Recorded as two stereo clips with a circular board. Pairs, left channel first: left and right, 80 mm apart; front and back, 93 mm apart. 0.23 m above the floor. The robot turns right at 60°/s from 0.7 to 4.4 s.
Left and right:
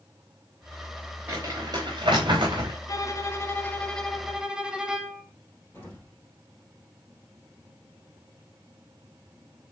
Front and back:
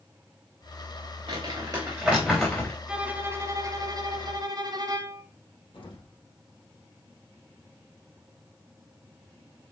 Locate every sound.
1.3 s crumpling: 155° right, 4 m; by 2.8 s 65° right, 4 m
2.9 s a violin: 100° left, 1.1 m; by 5.2 s 170° right, 1.1 m
5.7 s an explosion: 25° left, 3.5 m